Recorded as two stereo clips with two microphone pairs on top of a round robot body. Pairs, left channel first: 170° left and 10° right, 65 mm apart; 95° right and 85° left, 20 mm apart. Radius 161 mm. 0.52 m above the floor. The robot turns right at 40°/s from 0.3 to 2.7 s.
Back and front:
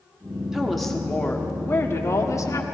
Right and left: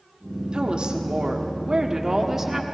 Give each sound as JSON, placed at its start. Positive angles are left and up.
{"t": 0.5, "sound": "a woman speaking", "azimuth_deg": 65, "distance_m": 1.7}